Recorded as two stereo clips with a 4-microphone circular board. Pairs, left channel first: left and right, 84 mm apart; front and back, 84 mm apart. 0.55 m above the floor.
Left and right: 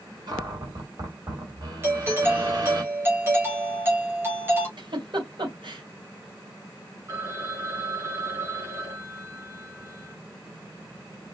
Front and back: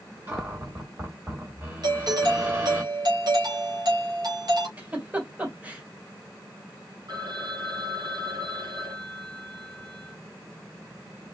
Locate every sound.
0.3 s a cupboard door: 120° right, 3 m
1.8 s a doorbell: 150° right, 3 m
4.8 s a giggle: 110° right, 3 m
7.1 s a phone ringing: 145° right, 2.5 m